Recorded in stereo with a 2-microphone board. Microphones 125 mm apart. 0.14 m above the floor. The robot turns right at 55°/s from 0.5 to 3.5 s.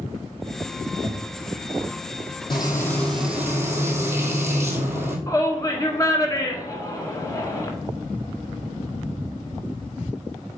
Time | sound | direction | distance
1.0 | knocking | 45° left (ahead or behind) | 1.5 m
2.5 | frying | 145° left | 1.7 m
5.3 | a shout | 25° left (ahead or behind) | 1.4 m